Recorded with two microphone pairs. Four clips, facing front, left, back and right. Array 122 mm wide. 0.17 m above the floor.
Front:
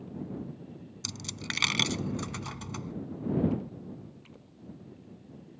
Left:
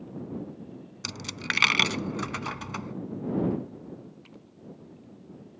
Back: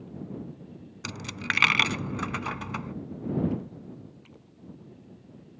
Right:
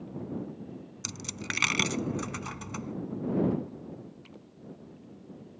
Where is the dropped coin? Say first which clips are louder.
Left 5 dB, back 8 dB; 145° left.